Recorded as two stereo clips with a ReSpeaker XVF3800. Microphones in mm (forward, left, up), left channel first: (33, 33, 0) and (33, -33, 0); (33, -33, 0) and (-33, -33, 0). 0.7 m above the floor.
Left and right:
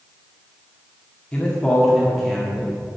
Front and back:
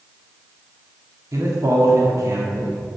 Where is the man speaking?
160° left, 1.8 m; by 2.8 s 165° right, 1.5 m.